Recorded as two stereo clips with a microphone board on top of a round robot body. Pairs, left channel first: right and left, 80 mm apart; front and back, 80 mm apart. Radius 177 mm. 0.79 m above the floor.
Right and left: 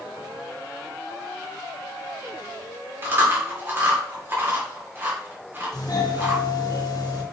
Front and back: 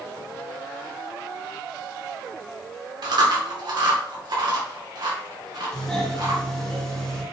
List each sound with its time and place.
3.0 s chewing: 150° left, 2.5 m
5.7 s a doorbell: 80° right, 2.5 m